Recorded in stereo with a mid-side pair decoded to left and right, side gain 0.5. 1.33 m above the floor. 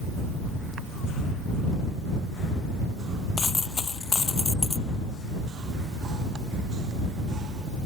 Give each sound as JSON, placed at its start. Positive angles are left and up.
{"t": 3.4, "sound": "a dropped coin", "azimuth_deg": 30}